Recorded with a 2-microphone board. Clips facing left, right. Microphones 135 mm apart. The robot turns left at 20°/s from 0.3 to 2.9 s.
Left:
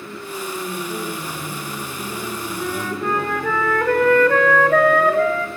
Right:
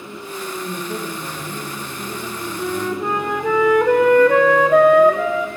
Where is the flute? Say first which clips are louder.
Right 3 dB; 10° right (ahead or behind), 3.5 m; by 5.5 s 15° right (ahead or behind), 3.5 m.